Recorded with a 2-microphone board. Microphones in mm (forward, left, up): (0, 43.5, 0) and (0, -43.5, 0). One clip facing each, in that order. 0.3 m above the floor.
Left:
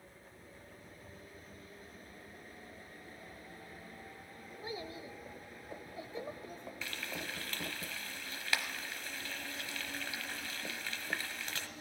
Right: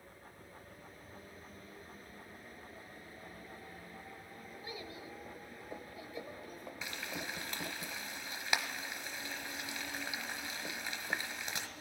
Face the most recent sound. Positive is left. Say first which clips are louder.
# right 1 dB
turn(degrees=-20)  # may be behind; listen again after turning